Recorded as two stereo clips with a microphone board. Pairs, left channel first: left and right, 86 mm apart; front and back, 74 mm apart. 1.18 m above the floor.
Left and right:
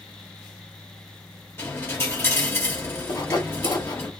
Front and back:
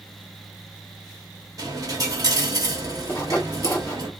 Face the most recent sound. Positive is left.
turn(degrees=55)